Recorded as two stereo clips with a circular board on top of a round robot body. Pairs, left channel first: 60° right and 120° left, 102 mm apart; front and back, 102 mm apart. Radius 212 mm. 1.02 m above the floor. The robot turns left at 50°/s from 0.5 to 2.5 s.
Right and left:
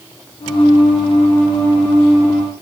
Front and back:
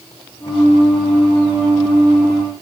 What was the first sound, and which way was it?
Only background noise.